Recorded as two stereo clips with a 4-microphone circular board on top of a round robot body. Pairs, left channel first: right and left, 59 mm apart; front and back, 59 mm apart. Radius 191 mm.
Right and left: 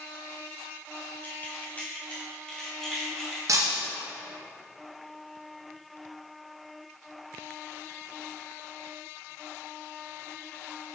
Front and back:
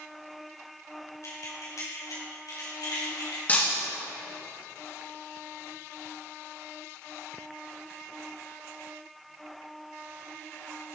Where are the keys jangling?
35° right, 2.5 m; by 3.4 s straight ahead, 2.5 m.